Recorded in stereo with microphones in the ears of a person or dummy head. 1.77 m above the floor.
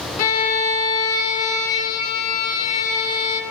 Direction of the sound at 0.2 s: 45° left (ahead or behind).